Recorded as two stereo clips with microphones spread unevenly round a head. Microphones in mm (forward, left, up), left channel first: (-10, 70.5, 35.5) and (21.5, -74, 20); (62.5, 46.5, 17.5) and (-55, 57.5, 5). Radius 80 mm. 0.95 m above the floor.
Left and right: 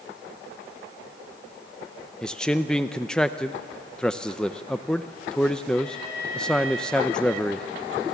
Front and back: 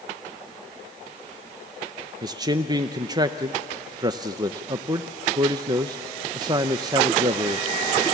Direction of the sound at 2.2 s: 165° right.